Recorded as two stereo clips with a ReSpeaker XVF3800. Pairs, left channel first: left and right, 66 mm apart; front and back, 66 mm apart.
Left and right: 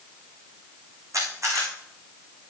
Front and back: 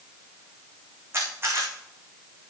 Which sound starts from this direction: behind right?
A camera shutter, at 1.1 s.